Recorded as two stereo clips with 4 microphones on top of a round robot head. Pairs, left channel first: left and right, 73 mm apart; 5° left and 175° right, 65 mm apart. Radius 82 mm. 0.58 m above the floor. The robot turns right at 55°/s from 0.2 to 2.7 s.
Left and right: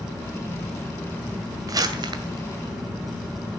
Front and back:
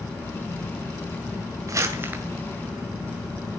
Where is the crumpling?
135° right, 2 m; by 2.2 s 100° right, 2 m.